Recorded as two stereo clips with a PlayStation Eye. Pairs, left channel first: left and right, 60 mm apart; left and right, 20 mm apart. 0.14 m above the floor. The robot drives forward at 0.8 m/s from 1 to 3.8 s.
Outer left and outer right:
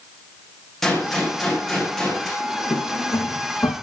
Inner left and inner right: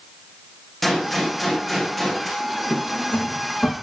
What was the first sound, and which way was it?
A gunshot, 5° left (ahead or behind).